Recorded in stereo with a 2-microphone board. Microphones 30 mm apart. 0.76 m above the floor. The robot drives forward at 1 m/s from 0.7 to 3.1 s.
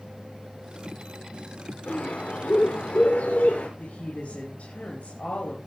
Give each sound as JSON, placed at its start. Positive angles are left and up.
{"t": 1.9, "sound": "a bird", "side_deg": 85, "distance_m": 6.5}
{"t": 3.8, "sound": "a woman speaking", "side_deg": 65, "distance_m": 5.0}